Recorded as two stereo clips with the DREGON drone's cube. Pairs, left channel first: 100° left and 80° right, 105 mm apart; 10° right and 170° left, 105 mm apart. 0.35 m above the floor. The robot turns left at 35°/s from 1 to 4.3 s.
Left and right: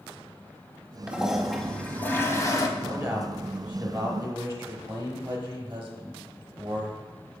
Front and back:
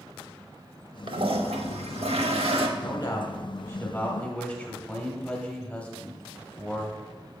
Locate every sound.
1.1 s a toilet flushing: 155° right, 0.7 m; by 2.7 s 145° left, 0.7 m
2.8 s a man speaking: 15° right, 0.9 m; by 7.0 s 65° right, 0.9 m